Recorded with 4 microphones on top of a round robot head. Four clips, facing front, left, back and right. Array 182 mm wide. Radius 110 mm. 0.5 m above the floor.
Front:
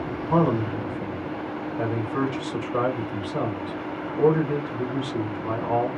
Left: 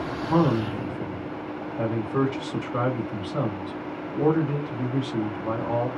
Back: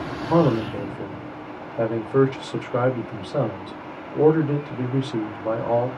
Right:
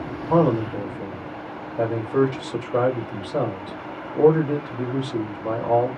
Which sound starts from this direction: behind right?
A man speaking, at 0.3 s.